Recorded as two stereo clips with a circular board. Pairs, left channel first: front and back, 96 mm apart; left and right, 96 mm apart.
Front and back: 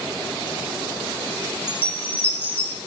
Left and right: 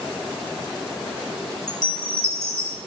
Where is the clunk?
I don't hear a clunk.